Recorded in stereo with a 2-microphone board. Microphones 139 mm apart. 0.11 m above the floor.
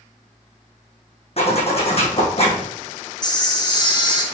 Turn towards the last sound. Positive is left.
turn(degrees=30)  # may be behind; listen again after turning